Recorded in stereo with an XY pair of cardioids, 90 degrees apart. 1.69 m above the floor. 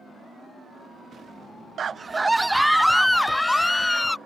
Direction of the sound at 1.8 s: 55° right.